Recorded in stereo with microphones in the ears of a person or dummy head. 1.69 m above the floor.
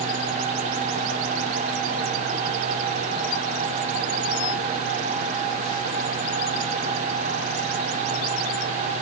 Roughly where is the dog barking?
No dog barking in this recording.